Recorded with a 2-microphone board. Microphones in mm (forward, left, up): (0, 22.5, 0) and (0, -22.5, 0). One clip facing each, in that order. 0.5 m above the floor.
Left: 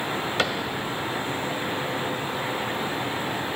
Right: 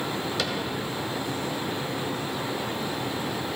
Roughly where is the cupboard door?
Left.